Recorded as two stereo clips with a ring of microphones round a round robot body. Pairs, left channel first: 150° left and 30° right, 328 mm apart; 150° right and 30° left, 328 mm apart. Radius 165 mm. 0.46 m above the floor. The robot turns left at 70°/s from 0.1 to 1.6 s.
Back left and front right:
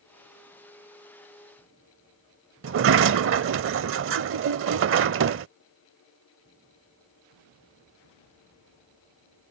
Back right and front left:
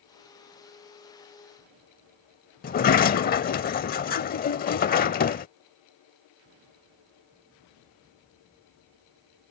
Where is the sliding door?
85° right.